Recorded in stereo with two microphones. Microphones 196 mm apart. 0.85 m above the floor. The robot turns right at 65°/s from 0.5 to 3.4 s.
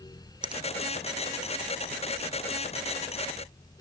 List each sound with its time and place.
0.4 s a finger snap: 25° right (ahead or behind), 0.8 m